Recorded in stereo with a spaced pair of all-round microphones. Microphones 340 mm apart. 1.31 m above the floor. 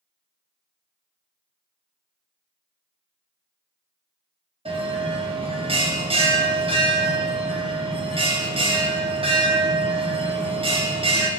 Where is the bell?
15° right (ahead or behind), 0.7 m.